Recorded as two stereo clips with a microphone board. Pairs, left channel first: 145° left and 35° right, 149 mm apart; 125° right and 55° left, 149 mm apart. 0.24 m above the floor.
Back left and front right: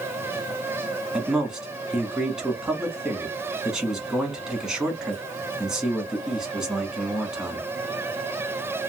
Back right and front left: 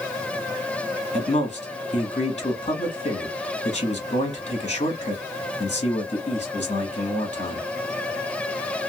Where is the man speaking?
120° right, 1.4 m.